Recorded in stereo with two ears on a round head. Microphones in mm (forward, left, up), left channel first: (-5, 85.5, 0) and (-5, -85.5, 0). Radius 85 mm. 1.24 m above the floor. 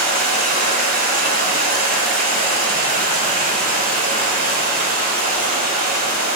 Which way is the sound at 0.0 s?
55° right (ahead or behind).